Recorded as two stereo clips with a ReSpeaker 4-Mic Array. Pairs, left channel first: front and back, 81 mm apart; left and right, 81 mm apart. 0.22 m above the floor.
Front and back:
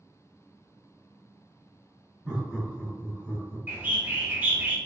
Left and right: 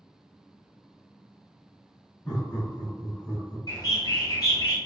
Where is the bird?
120° left, 0.7 m.